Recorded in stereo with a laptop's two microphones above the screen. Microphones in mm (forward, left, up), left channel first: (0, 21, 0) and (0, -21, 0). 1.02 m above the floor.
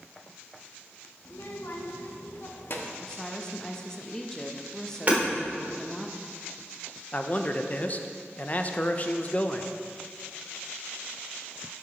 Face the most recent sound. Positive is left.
turn(degrees=35)  # may be behind; listen again after turning